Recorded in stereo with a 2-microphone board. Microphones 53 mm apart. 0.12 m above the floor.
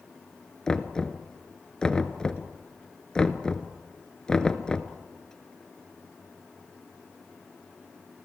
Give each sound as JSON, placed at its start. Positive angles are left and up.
{"t": 0.7, "sound": "knocking", "side_deg": 15, "distance_m": 1.0}